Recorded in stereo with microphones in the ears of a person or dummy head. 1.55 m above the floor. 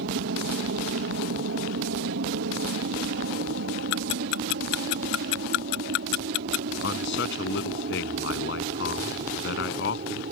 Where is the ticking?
70° left (ahead or behind).